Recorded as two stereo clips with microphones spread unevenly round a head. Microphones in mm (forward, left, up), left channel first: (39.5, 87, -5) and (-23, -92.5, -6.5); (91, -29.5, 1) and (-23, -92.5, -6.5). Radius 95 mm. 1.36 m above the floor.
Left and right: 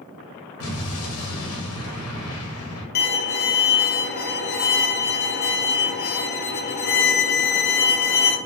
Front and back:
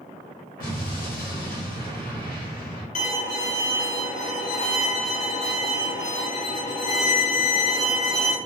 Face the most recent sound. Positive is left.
turn(degrees=50)